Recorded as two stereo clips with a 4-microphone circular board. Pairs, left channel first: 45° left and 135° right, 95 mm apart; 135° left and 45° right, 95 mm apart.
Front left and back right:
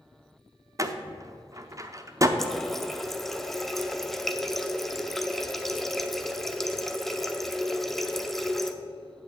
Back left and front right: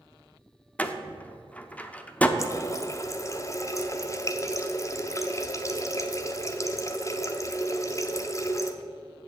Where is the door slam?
160° right, 0.6 m.